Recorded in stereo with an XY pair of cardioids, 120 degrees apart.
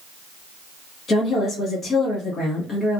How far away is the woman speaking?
About 1.3 m.